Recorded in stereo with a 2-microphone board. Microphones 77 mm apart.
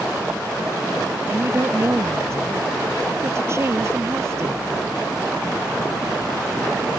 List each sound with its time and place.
1.3 s a woman speaking: 35° right (ahead or behind)